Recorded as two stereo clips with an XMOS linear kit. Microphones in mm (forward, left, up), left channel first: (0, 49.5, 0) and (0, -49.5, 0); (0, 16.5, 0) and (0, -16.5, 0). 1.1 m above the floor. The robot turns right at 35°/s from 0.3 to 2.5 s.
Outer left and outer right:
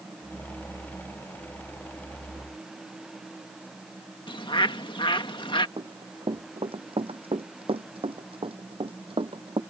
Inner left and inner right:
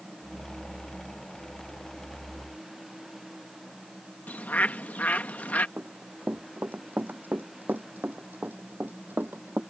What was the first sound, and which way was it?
A bird, 55° left (ahead or behind).